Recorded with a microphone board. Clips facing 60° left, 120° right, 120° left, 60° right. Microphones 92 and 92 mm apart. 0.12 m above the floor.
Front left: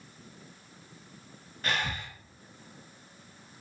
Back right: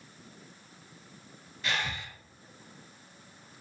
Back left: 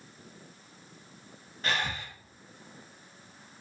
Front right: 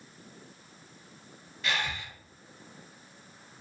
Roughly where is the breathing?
Left.